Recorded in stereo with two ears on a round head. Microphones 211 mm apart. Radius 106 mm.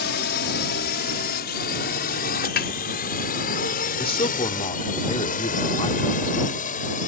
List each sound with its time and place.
0.0 s a drone: 45° left (ahead or behind); by 7.1 s 35° left (ahead or behind)
2.6 s a snare drum: 40° left (ahead or behind)
4.0 s a man speaking: 25° left (ahead or behind)